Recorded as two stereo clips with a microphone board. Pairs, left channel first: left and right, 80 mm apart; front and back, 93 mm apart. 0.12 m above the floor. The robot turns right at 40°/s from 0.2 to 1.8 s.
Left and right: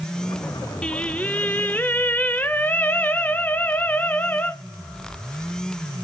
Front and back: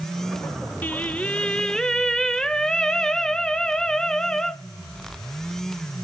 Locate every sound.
0.8 s singing: 30° left, 0.8 m; by 4.5 s 70° left, 0.8 m